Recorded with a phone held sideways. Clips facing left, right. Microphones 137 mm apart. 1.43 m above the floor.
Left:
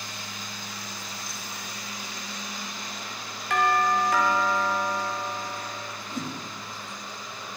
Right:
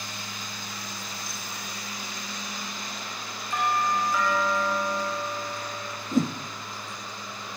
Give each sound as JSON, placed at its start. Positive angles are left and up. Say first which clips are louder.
{"t": 3.5, "sound": "a doorbell", "louder": "left 3 dB", "side_deg": 85, "distance_m": 7.5}
{"t": 6.1, "sound": "a whoosh", "louder": "right 10 dB", "side_deg": -50, "distance_m": 2.0}